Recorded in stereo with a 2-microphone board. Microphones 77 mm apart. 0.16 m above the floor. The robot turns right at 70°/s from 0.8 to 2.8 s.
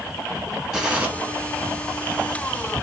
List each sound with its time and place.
0.7 s a gunshot: 5° right (ahead or behind), 2 m; by 1.1 s 25° right (ahead or behind), 2 m